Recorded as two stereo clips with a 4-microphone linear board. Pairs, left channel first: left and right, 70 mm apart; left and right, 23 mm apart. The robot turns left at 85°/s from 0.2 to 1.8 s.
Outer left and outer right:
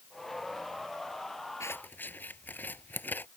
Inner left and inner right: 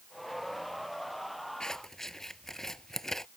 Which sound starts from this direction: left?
Scissors, at 1.6 s.